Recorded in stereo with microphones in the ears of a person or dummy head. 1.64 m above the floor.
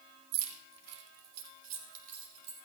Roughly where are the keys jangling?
Right.